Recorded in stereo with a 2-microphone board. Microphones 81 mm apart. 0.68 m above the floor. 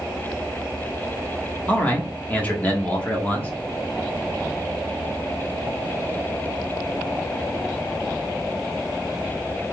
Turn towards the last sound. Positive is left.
turn(degrees=20)  # may be behind; listen again after turning